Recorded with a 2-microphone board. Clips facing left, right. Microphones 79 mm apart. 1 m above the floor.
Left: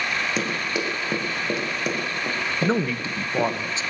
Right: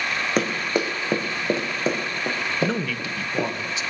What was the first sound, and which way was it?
Running footsteps, 50° right (ahead or behind).